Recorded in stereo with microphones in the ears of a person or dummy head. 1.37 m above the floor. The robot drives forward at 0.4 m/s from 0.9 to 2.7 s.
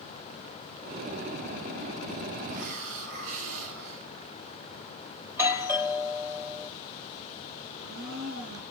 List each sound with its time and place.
2.5 s a hiss: 80° right, 4.5 m
5.2 s a doorbell: 15° right (ahead or behind), 1.4 m
7.7 s a blender: 75° right (ahead or behind), 10 m